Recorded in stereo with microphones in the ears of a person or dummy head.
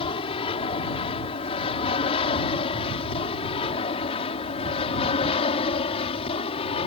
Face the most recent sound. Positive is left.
turn(degrees=35)  # may be behind; listen again after turning